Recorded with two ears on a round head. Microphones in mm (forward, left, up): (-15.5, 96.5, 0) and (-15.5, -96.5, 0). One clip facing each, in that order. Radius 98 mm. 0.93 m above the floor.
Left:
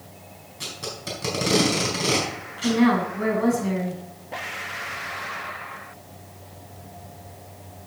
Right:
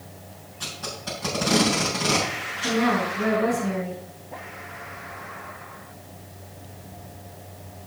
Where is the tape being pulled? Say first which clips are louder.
Left 1 dB; 30° left (ahead or behind), 4 m.